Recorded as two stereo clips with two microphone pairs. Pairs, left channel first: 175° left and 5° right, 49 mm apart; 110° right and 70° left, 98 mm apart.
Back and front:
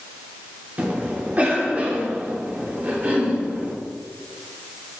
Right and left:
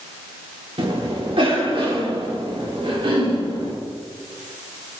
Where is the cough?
45° left, 3 m.